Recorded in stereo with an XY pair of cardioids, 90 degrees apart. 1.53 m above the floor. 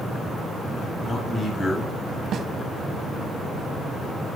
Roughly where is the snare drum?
Ahead right.